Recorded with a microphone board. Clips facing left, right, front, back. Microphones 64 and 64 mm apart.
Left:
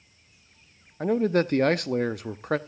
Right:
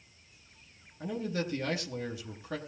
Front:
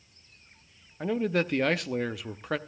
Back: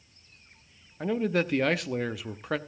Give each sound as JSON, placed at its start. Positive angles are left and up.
{"t": 1.0, "sound": "a man speaking", "azimuth_deg": 90, "distance_m": 0.8}